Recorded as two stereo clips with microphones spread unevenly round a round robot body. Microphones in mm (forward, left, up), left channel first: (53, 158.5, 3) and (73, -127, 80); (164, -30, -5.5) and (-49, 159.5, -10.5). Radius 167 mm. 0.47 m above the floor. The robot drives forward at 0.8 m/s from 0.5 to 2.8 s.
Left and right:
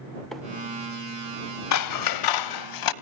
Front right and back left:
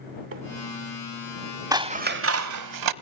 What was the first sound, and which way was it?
A microwave, 165° left.